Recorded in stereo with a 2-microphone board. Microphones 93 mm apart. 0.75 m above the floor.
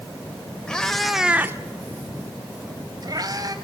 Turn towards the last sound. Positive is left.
turn(degrees=-45)  # may be behind; listen again after turning